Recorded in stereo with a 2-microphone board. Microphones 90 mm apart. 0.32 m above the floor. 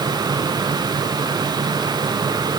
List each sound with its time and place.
Only background noise.